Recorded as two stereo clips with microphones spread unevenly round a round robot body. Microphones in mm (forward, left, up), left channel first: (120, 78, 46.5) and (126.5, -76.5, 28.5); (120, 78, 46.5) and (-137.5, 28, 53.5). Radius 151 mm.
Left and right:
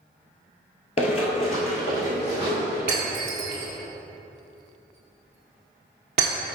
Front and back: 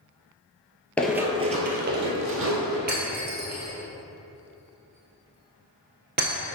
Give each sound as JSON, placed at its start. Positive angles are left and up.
{"t": 1.0, "sound": "running footsteps", "azimuth_deg": 95, "distance_m": 0.8}
{"t": 2.9, "sound": "breaking glass", "azimuth_deg": -110, "distance_m": 1.2}